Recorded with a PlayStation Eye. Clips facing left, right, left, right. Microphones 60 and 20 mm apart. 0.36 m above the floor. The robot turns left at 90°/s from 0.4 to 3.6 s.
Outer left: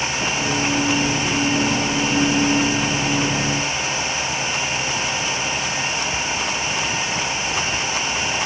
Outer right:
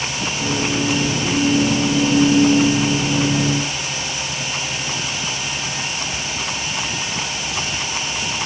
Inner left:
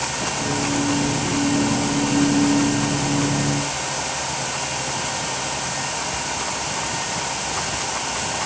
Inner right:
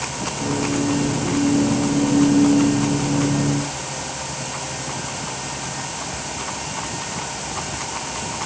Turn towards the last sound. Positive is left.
No sound to turn to.